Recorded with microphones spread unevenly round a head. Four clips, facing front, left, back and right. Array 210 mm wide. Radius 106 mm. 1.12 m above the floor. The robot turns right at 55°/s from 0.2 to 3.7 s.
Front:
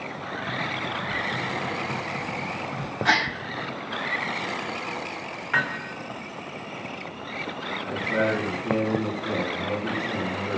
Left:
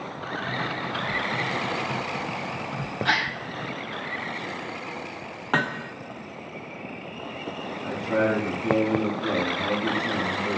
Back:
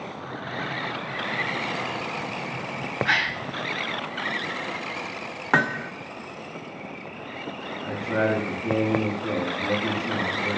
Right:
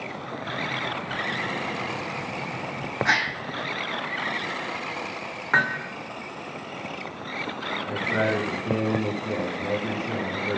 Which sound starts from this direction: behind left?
Hammering, at 5.5 s.